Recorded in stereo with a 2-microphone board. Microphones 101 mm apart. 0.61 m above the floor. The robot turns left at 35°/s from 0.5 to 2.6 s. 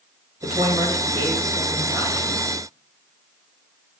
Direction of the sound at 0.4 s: 85° right.